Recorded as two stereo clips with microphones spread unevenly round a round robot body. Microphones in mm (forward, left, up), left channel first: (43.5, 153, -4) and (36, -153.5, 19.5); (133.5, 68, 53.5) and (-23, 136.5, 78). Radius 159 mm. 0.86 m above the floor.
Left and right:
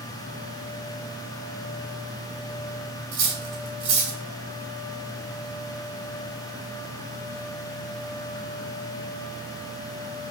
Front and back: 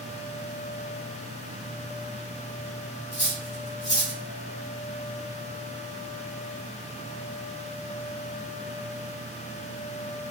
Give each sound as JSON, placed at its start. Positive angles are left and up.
{"t": 3.1, "sound": "cutlery clinking", "azimuth_deg": -85, "distance_m": 1.9}